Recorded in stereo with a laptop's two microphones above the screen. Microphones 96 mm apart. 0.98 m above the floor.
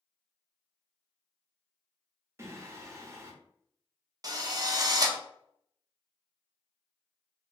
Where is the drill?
40° right (ahead or behind), 0.5 m.